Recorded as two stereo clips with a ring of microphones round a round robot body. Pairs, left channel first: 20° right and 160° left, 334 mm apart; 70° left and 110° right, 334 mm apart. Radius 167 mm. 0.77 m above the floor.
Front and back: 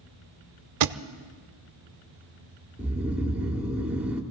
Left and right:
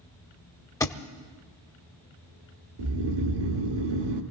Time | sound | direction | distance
0.8 | a thud | 145° left | 0.7 m
2.8 | snoring | 115° right | 1.6 m